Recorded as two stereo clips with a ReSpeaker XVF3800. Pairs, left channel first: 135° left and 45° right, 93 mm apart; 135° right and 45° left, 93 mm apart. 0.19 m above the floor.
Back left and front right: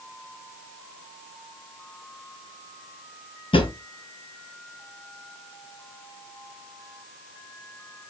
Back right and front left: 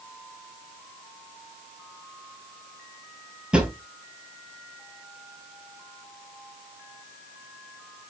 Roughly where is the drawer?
Behind left.